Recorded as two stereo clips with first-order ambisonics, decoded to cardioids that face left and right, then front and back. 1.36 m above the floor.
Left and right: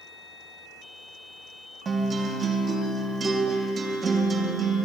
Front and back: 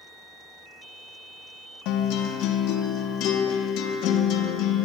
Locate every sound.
1.9 s a guitar: 25° right, 0.9 m